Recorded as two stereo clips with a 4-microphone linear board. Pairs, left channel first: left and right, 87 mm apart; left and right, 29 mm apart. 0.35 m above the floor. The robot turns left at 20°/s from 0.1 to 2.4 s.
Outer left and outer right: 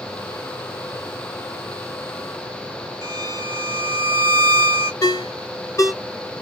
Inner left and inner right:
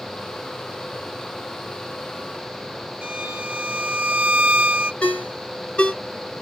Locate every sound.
3.0 s a violin: 45° right (ahead or behind), 0.7 m
5.0 s a ringtone: 40° left (ahead or behind), 1.0 m